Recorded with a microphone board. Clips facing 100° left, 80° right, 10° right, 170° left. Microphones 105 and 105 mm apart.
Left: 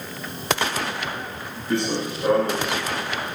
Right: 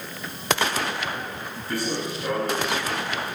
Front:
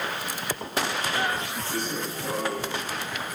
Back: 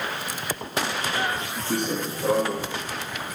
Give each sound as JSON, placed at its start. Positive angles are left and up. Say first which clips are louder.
{"t": 1.7, "sound": "running footsteps", "louder": "left 4 dB, back 6 dB", "azimuth_deg": 165, "distance_m": 3.0}